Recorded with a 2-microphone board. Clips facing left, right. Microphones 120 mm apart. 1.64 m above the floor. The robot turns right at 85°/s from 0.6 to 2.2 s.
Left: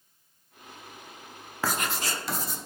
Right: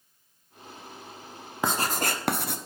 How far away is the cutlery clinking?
I don't hear cutlery clinking.